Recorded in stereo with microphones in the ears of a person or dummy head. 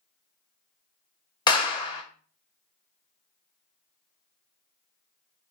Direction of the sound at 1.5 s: 25° left (ahead or behind).